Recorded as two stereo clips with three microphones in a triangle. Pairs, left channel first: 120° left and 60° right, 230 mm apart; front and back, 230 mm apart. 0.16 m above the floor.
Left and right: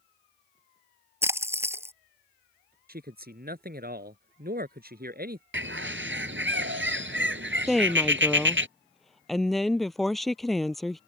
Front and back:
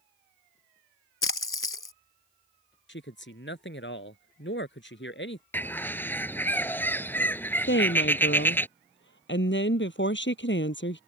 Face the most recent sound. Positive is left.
turn(degrees=30)